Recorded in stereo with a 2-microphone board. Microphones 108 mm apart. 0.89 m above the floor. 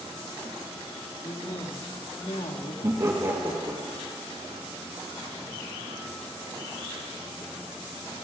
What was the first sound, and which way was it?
A woman speaking, 60° left (ahead or behind).